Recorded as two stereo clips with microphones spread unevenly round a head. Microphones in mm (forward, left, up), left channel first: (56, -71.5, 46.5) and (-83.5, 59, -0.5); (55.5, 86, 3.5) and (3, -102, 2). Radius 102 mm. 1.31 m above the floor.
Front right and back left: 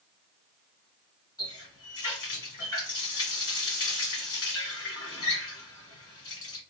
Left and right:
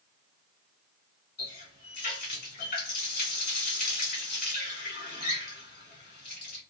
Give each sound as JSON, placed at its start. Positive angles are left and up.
{"t": 1.4, "sound": "a running tap", "azimuth_deg": 25, "distance_m": 2.0}